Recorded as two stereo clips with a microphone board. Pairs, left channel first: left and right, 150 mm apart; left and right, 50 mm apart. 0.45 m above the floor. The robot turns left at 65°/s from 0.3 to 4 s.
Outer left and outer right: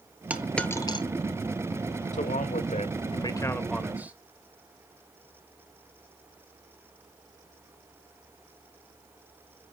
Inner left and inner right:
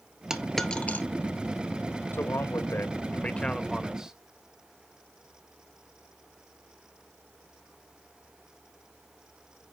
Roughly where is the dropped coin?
Centre.